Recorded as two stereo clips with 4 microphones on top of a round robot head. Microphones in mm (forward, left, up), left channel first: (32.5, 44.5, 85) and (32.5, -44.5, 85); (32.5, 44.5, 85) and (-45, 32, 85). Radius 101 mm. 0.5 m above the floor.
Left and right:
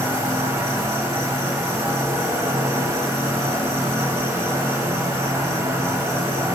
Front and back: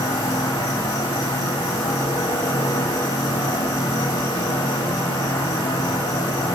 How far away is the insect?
About 1.2 m.